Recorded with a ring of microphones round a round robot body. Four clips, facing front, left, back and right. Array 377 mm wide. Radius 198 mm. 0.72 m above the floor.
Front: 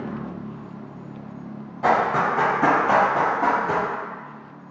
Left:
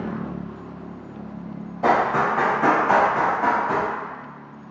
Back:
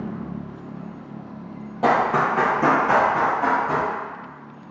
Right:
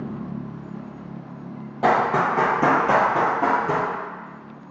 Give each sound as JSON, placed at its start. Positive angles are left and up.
{"t": 1.8, "sound": "running footsteps", "azimuth_deg": -135, "distance_m": 1.2}